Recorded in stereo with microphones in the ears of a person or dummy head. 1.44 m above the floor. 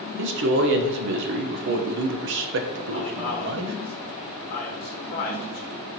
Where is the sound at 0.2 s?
60° right (ahead or behind), 0.5 m.